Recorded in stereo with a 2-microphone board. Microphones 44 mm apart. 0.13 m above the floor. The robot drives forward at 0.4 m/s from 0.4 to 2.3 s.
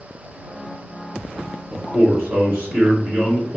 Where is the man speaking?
30° right (ahead or behind), 1.7 m.